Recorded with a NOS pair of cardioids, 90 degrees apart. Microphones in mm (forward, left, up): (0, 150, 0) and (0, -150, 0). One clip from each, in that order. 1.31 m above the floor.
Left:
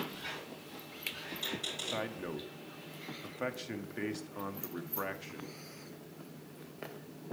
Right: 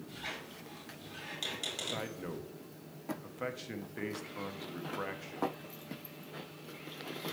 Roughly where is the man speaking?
Ahead.